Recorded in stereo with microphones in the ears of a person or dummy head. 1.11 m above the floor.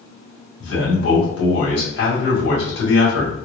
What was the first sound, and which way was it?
A man speaking, 70° left (ahead or behind).